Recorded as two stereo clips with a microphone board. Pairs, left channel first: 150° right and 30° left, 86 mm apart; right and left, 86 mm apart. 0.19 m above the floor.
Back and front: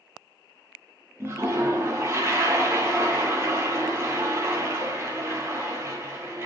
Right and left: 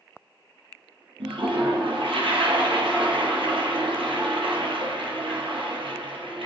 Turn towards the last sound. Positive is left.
turn(degrees=90)